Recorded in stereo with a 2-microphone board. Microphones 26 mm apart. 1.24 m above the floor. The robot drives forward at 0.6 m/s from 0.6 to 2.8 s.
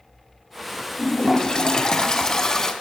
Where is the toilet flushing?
30° left (ahead or behind), 1.2 m; by 2.7 s 20° left (ahead or behind), 1.8 m.